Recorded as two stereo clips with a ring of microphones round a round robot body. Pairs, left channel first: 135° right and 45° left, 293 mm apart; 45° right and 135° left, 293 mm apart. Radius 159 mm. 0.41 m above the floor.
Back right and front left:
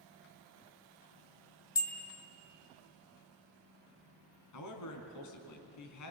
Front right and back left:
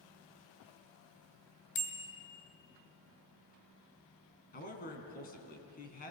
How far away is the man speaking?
About 3.5 m.